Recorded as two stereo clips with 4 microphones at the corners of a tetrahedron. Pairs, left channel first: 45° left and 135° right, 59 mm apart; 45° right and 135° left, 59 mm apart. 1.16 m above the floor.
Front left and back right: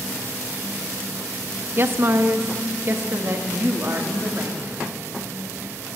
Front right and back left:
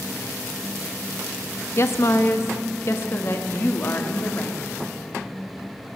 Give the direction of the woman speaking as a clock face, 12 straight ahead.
3 o'clock.